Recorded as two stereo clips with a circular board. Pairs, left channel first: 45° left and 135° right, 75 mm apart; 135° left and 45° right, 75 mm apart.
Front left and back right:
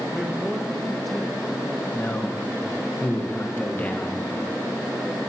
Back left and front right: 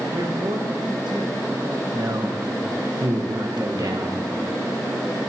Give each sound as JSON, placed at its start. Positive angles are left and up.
{"t": 0.1, "sound": "a man speaking", "azimuth_deg": -45, "distance_m": 1.7}
{"t": 1.9, "sound": "a man speaking", "azimuth_deg": -20, "distance_m": 1.4}